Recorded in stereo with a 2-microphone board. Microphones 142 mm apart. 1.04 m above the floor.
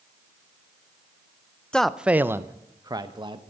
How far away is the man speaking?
About 0.5 m.